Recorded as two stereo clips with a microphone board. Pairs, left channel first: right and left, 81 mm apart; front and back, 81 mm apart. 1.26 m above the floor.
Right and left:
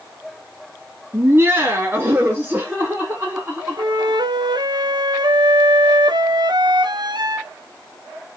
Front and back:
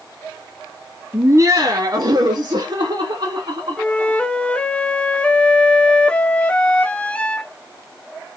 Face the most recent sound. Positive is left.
turn(degrees=75)